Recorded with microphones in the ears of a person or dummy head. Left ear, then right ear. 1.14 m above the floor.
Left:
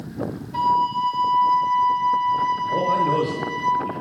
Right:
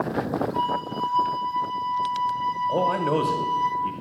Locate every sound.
0.5 s a flute: 60° left (ahead or behind), 4 m
2.7 s a man speaking: 30° right (ahead or behind), 1.0 m